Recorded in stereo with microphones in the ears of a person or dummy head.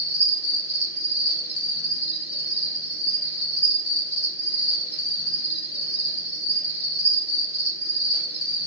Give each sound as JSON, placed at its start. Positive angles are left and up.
{"t": 0.0, "sound": "an insect", "side_deg": 50, "distance_m": 1.6}